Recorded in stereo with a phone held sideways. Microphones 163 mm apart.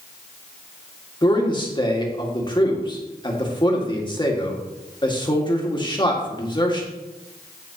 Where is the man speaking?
30° left (ahead or behind), 2 m.